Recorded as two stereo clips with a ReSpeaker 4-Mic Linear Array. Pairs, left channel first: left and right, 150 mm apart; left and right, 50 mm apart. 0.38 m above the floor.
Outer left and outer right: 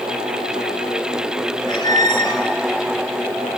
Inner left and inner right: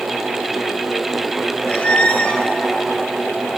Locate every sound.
1.7 s a squeak: 30° left (ahead or behind), 1.0 m